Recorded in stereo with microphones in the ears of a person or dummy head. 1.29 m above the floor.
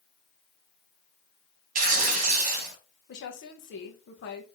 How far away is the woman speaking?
About 1.1 m.